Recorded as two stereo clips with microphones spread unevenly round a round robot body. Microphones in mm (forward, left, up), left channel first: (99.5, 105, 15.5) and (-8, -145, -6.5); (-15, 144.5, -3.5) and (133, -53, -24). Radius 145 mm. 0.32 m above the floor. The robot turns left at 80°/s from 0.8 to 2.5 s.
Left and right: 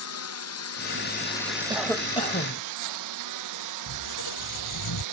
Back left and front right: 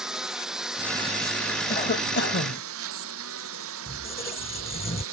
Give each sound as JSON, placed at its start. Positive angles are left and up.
{"t": 0.0, "sound": "a lawn mower", "azimuth_deg": 35}
{"t": 1.7, "sound": "a cough", "azimuth_deg": 170}
{"t": 3.9, "sound": "a squeak", "azimuth_deg": 60}